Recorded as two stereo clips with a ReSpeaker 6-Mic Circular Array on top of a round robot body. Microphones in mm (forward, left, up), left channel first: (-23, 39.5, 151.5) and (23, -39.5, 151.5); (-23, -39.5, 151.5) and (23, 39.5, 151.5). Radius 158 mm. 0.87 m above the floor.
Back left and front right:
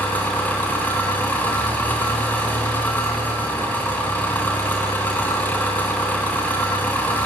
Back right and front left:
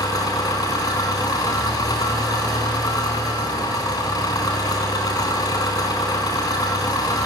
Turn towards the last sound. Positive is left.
turn(degrees=-170)